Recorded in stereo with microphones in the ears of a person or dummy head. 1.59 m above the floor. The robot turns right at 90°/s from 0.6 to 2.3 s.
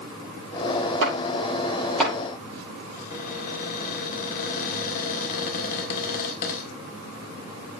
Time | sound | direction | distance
1.0 | chopping | 80° right | 7.5 m
2.9 | a cupboard door | 45° left (ahead or behind) | 2.5 m